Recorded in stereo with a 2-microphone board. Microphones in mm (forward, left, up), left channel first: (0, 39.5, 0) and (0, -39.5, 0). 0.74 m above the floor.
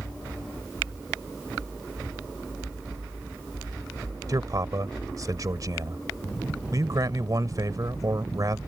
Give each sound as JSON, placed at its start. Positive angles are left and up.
{"t": 4.3, "sound": "a man speaking", "side_deg": -50}